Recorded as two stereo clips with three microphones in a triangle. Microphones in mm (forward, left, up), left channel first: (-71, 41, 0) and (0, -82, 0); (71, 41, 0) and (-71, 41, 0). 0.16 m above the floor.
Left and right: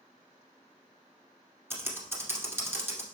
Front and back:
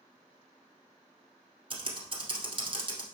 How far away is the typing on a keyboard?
About 1.7 m.